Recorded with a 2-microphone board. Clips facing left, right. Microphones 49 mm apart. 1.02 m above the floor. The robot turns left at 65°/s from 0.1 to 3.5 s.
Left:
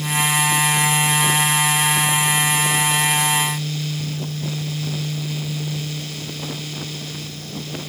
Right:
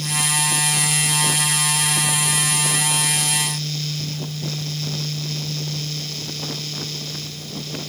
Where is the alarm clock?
No alarm clock in this recording.